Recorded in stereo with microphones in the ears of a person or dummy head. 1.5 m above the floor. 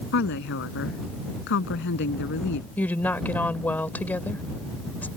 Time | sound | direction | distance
0.1 | a woman speaking | 65° left (ahead or behind) | ?
2.8 | a woman speaking | 10° left (ahead or behind) | ?